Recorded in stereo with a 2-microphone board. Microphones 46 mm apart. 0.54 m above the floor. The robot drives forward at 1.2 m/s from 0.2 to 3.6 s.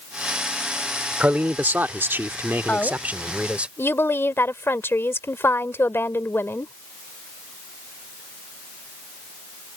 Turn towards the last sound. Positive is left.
turn(degrees=55)  # may be behind; listen again after turning